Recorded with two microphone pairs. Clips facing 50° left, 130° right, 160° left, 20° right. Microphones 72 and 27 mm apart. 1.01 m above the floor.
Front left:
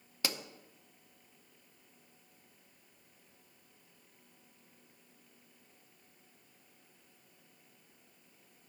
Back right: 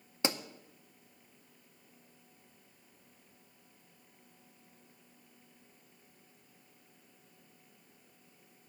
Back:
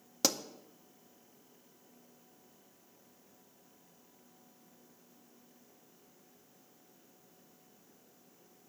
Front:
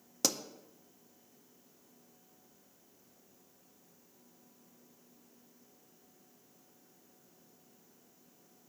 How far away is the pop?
About 0.6 m.